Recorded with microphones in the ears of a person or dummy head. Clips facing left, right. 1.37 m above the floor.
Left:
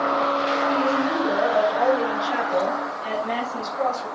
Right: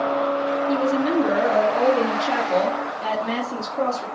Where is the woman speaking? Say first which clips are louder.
Right 4 dB; 65° right (ahead or behind), 2.5 m.